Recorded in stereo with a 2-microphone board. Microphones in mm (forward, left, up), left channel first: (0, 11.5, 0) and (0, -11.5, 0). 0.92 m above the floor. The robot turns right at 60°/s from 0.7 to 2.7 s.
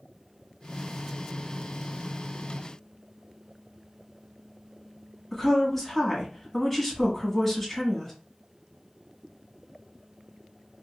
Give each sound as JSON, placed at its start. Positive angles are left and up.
{"t": 5.3, "sound": "a woman speaking", "side_deg": 5, "distance_m": 1.4}